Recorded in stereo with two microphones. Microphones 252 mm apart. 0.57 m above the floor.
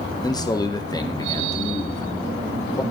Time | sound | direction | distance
0.2 | a man speaking | 15° left (ahead or behind) | 0.8 m